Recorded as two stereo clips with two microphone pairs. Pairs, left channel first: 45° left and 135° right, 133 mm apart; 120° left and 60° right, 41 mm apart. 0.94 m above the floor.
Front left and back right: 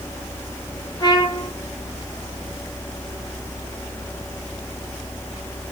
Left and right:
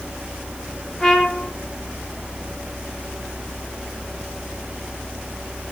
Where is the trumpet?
50° left, 0.8 m.